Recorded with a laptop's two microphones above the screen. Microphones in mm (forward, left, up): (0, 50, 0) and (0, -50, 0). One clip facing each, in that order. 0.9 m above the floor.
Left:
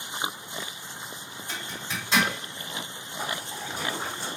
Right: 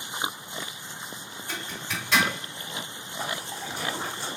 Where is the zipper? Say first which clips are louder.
Right 1 dB; 20° left (ahead or behind), 1.7 m.